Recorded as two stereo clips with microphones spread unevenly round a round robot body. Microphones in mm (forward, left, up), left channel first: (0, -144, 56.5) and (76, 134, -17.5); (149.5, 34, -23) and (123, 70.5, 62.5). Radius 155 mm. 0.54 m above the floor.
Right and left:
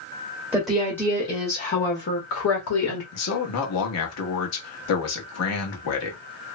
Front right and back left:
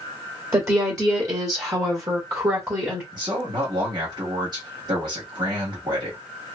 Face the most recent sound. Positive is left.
turn(degrees=-130)